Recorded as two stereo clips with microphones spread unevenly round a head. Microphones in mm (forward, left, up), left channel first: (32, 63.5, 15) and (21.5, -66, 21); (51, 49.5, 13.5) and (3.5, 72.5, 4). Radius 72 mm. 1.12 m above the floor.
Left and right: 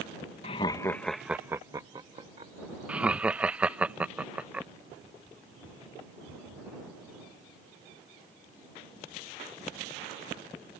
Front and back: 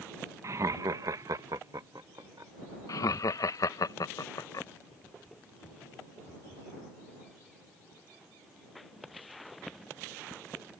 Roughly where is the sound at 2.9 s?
Ahead.